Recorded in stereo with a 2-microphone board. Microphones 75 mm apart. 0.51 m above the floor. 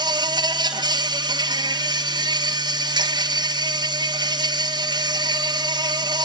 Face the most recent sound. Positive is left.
turn(degrees=-75)  # may be behind; listen again after turning